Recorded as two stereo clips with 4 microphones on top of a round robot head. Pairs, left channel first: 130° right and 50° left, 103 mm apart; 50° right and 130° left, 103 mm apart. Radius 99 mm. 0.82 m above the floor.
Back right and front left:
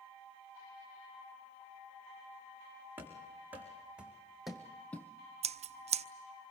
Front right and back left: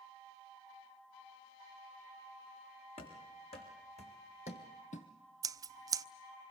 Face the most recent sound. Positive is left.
turn(degrees=70)